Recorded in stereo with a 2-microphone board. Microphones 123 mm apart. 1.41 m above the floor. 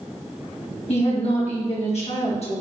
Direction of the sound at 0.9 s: 60° left (ahead or behind).